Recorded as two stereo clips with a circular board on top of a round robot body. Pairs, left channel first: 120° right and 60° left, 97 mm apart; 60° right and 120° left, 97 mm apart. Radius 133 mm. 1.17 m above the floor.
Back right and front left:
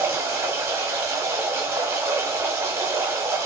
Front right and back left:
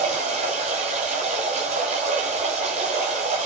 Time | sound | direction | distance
0.0 | running water | 130° left | 1.2 m